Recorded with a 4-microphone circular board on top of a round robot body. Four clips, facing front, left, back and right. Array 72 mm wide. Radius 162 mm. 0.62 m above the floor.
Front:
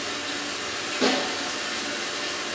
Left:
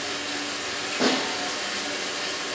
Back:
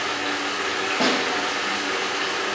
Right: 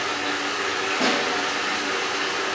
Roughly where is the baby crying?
I don't hear a baby crying.